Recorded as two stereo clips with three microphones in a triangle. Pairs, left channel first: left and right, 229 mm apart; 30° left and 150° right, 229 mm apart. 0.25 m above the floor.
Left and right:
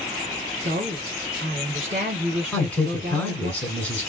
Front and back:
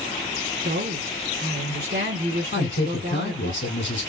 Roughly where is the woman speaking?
Behind right.